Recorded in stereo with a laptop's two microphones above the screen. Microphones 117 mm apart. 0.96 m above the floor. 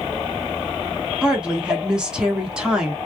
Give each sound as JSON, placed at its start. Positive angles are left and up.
{"t": 1.2, "sound": "a woman speaking", "side_deg": -5, "distance_m": 1.1}